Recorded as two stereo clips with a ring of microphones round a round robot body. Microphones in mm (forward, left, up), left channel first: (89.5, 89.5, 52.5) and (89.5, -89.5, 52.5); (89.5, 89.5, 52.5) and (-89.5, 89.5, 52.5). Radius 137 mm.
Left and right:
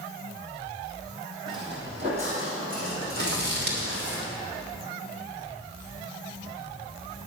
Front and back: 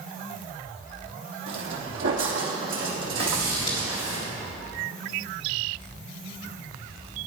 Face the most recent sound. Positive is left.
turn(degrees=-70)